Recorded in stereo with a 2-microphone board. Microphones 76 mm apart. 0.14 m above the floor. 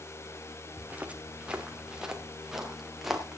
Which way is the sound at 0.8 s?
20° right (ahead or behind).